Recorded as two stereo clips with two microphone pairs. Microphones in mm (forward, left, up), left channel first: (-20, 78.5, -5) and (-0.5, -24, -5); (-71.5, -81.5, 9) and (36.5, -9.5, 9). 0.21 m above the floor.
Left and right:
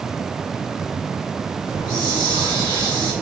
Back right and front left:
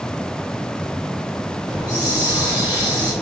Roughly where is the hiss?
Left.